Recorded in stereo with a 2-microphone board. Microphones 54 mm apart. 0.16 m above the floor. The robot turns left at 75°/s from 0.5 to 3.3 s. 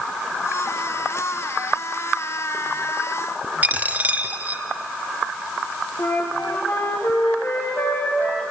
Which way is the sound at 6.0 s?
55° left (ahead or behind).